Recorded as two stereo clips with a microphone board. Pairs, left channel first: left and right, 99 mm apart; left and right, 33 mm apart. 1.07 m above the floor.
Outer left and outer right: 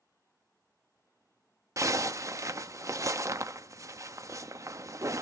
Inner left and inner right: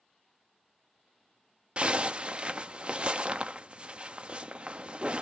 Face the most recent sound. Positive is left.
turn(degrees=-30)  # may be behind; listen again after turning